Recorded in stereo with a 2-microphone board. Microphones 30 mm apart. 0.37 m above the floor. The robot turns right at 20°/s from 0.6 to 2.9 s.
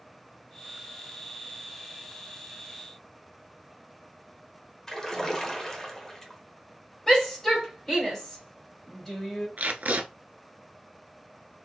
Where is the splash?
15° left (ahead or behind), 1.3 m.